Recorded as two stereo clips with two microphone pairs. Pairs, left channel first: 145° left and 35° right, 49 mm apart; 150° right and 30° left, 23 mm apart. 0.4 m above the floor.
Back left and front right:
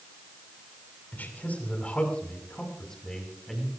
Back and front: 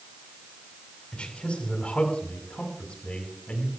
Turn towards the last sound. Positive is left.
turn(degrees=-125)